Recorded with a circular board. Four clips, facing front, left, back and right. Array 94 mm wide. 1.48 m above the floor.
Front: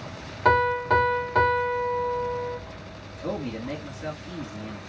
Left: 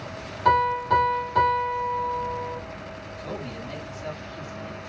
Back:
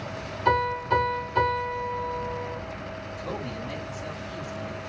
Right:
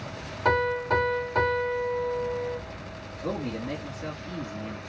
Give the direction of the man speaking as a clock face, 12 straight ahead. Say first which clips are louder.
Right 5 dB, front 5 dB; 1 o'clock.